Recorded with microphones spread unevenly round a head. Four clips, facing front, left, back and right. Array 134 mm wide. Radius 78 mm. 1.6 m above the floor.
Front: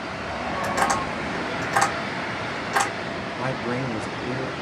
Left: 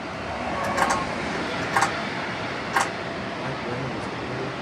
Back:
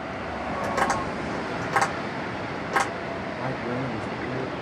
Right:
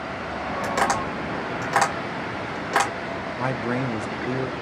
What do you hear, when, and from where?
0.6 s tapping: 145° right, 2 m
3.4 s a man speaking: 85° right, 0.6 m